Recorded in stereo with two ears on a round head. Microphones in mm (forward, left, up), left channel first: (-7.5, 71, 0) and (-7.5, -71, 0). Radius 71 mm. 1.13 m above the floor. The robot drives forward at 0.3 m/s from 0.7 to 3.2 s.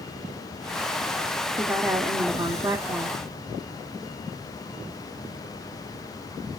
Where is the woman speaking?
10° right (ahead or behind), 0.6 m; by 3.2 s 15° right (ahead or behind), 0.5 m.